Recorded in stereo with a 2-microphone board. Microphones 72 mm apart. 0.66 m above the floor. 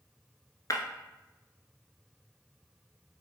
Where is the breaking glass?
55° left (ahead or behind), 1.1 m.